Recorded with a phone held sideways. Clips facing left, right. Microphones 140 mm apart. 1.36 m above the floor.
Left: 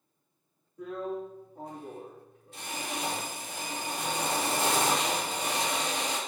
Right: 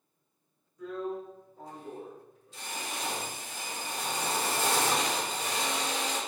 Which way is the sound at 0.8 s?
60° left (ahead or behind).